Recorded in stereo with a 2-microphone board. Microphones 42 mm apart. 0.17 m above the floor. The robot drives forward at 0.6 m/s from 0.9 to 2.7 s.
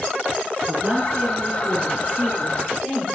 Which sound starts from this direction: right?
A woman speaking, at 0.7 s.